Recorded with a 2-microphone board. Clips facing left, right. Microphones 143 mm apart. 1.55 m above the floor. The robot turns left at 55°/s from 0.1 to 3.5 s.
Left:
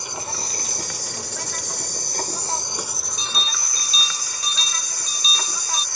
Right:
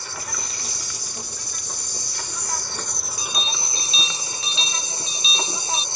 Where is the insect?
160° left; by 6.0 s 25° right.